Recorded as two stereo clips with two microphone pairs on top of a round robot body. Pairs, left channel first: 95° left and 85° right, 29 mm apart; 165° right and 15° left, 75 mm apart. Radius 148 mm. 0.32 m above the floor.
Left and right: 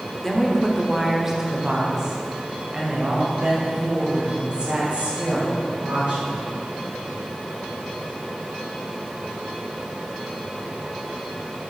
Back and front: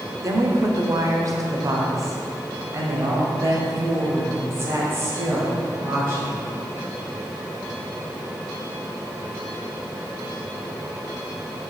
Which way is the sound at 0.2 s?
5° left.